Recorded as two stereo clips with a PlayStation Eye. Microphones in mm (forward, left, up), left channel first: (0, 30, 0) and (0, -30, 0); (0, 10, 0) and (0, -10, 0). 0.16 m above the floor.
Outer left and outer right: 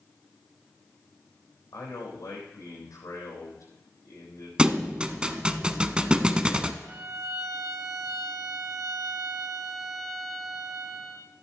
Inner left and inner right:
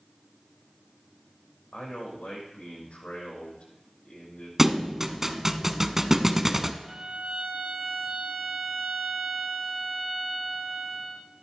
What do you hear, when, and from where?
1.7 s a man speaking: 75° left (ahead or behind), 6.5 m
4.6 s a thud: 15° right (ahead or behind), 0.7 m
6.8 s a violin: 85° right, 2.5 m